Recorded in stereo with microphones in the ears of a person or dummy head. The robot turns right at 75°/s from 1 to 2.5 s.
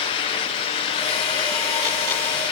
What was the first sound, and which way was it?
Only background noise.